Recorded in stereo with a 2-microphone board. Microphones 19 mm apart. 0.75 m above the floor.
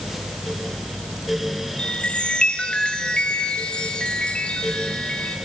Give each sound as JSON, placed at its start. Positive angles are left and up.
{"t": 1.8, "sound": "a chime", "side_deg": 90, "distance_m": 2.5}